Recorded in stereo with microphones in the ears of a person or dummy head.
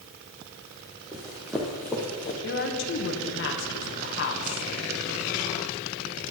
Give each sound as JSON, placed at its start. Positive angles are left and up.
{"t": 1.1, "sound": "running footsteps", "side_deg": -10, "distance_m": 1.4}
{"t": 2.4, "sound": "a woman speaking", "side_deg": 50, "distance_m": 1.5}